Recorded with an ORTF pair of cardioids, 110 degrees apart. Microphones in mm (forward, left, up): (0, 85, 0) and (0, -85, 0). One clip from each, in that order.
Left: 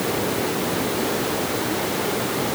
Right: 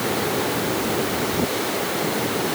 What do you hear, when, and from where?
Only background noise.